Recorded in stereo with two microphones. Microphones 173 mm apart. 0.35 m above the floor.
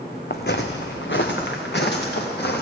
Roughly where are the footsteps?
Left.